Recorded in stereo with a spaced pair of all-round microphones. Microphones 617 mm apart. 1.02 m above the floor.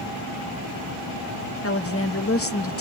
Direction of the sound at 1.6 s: 20° left (ahead or behind).